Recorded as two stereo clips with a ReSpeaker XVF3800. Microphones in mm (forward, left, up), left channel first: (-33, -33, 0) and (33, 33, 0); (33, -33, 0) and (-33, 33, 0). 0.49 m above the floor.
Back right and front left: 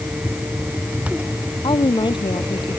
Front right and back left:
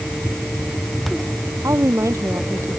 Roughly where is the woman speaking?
Behind.